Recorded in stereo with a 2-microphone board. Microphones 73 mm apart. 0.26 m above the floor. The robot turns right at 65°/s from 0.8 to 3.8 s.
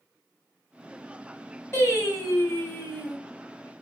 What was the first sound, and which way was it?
Singing, 70° left.